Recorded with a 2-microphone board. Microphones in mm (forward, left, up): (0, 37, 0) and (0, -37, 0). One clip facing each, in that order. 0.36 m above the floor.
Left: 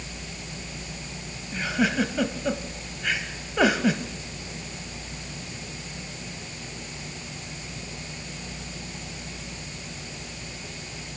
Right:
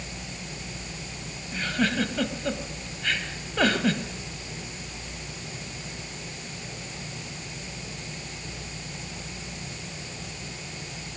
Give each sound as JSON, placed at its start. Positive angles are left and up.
{"t": 1.5, "sound": "a giggle", "side_deg": 10, "distance_m": 1.4}